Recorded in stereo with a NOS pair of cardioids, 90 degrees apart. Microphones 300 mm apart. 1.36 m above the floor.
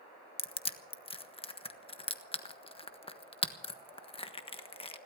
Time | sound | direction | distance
0.4 | crushing | 20° left | 1.4 m